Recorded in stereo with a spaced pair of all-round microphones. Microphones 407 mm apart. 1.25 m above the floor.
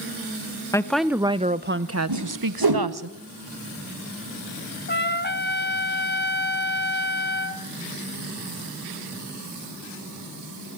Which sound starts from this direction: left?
A trumpet, at 4.9 s.